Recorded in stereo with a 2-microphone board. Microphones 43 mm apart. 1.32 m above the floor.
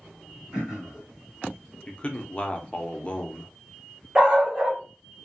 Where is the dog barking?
20° right (ahead or behind), 1.1 m.